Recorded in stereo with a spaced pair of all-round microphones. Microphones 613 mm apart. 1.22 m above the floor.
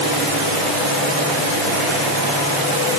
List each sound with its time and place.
Only background noise.